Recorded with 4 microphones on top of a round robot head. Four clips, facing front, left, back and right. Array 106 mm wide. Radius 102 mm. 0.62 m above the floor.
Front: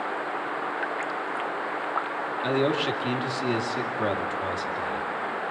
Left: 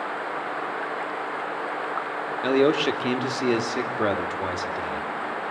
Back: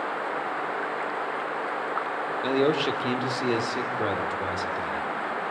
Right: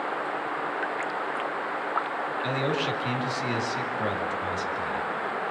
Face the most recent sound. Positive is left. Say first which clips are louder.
# left 10 dB, back 1 dB
turn(degrees=100)